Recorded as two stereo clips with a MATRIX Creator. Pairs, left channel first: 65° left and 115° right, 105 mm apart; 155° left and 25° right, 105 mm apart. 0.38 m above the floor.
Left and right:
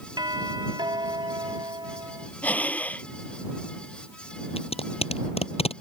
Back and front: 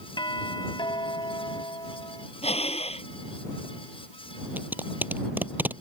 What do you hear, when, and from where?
0.2 s a doorbell: 160° right
2.4 s breathing: 145° left
4.6 s tape being pulled: 50° left